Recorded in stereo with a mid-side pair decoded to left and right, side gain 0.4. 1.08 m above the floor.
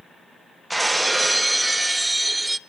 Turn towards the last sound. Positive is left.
turn(degrees=-15)